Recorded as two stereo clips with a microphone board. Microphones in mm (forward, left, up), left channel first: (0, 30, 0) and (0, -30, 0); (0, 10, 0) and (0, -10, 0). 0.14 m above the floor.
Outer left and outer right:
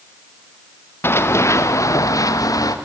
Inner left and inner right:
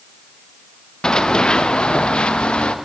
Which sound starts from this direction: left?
Running footsteps, at 1.0 s.